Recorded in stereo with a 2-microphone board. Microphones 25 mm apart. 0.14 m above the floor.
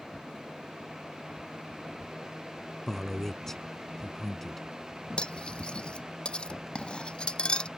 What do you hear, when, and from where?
2.9 s a man speaking: 15° left (ahead or behind)
5.2 s cutlery clinking: 40° left (ahead or behind)